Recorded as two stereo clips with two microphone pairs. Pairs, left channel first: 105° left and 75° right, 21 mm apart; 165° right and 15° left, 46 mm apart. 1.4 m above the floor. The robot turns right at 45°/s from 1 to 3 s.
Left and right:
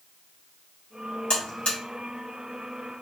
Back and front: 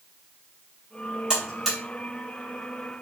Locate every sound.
1.3 s a buzzer: 90° left, 1.3 m; by 1.8 s 110° left, 1.3 m